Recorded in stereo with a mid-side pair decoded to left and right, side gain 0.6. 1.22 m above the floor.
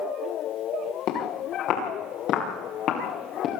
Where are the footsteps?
65° left, 9 m; by 3.5 s 55° left, 6.5 m.